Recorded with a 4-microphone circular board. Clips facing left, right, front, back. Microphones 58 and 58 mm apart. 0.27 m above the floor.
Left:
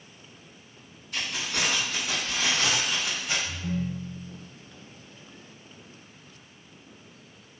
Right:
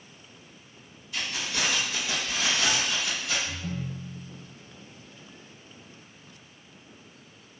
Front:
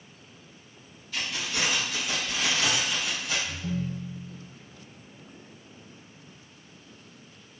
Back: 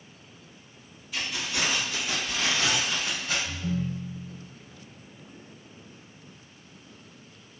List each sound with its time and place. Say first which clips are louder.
1.1 s keys jangling: left 1 dB, even; 105° left, 1.9 m; by 3.4 s 150° left, 1.6 m
3.5 s a ringtone: left 3 dB, back 1 dB; 170° left, 0.7 m